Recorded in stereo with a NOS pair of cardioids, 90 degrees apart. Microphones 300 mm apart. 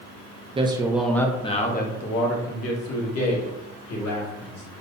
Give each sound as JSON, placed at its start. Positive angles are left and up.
{"t": 0.6, "sound": "a man speaking", "azimuth_deg": -20, "distance_m": 0.9}